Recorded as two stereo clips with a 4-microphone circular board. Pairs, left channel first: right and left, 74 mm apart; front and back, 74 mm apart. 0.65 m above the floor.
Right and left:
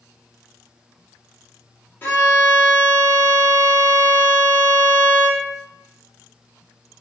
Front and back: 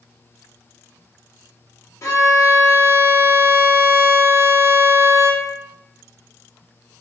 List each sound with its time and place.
2.0 s a violin: 35° right, 0.7 m